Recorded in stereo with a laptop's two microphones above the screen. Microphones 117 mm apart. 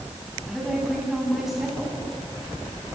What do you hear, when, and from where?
0.5 s a woman speaking: centre (ahead or behind), 9.5 m